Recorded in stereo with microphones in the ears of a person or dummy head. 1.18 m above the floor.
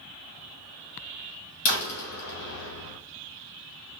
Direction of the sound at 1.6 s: 80° left.